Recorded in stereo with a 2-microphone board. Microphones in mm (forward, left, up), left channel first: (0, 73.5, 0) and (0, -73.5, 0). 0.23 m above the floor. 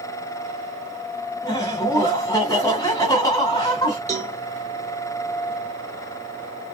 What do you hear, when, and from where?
1.4 s laughter: 25° left (ahead or behind), 1.7 m
4.1 s a cowbell: 55° right (ahead or behind), 1.2 m